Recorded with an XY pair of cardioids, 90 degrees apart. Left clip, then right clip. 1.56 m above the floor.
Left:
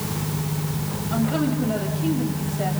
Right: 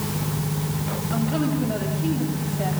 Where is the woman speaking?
15° left, 9.5 m.